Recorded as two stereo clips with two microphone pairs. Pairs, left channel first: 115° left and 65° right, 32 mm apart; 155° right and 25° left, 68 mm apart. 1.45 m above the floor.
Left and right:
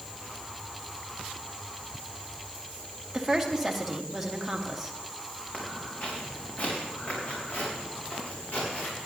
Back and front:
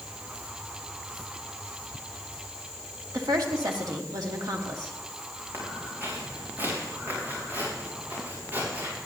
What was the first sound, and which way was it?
A woman speaking, 20° left.